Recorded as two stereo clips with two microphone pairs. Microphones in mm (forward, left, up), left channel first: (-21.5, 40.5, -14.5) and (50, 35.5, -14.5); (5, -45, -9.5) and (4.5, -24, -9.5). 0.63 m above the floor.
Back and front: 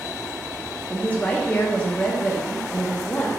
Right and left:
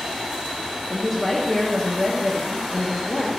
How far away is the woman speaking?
About 0.5 m.